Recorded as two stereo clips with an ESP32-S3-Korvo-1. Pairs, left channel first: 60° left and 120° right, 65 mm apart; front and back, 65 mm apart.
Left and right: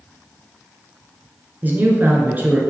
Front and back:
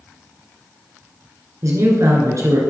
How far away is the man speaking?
About 1.9 m.